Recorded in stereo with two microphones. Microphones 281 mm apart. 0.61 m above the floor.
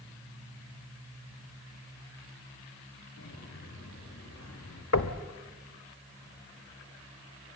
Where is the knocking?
75° left (ahead or behind), 1.4 m.